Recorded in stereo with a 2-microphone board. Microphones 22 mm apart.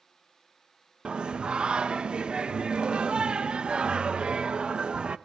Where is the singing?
50° right (ahead or behind), 0.5 m.